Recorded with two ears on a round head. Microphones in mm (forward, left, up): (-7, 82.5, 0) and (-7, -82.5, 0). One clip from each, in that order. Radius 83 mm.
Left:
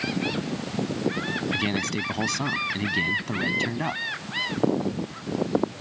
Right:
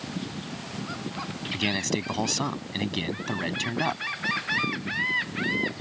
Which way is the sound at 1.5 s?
25° right (ahead or behind).